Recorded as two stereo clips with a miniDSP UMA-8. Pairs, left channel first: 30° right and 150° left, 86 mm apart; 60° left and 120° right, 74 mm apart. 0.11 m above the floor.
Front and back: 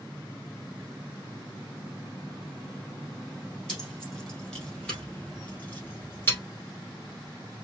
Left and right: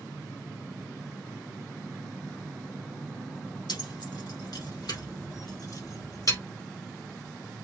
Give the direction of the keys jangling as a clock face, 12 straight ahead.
10 o'clock.